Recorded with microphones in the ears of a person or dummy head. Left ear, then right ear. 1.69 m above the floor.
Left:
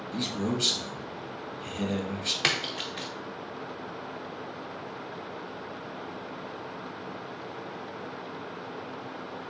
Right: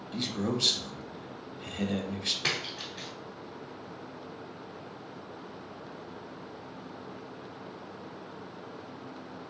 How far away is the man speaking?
About 0.5 m.